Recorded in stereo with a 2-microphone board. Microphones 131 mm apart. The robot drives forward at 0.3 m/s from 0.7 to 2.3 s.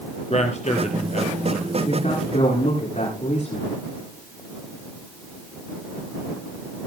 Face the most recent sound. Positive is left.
turn(degrees=60)  # may be behind; listen again after turning